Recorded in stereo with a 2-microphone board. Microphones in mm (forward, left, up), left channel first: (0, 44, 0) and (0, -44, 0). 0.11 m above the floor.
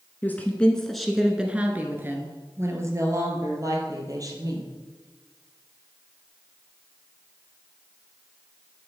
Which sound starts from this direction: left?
A woman speaking, at 0.2 s.